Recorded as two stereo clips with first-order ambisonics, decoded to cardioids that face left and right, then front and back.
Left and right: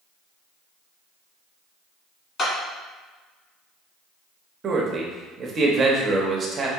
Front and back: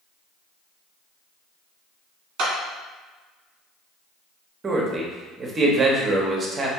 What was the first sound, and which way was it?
A clap, 150° left.